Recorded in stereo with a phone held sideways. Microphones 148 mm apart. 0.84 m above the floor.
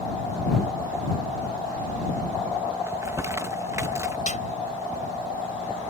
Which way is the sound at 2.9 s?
20° right (ahead or behind).